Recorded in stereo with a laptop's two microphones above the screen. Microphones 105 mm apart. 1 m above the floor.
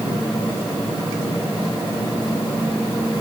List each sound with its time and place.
Only background noise.